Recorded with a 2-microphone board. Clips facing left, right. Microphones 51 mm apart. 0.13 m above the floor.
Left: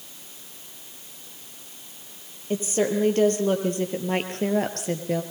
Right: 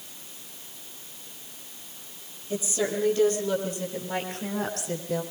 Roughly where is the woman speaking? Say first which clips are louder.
Left 4 dB; left.